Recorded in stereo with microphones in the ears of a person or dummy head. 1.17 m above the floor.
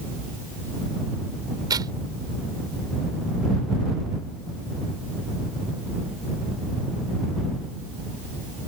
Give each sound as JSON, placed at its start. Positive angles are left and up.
{"t": 1.7, "sound": "tearing paper", "side_deg": -20}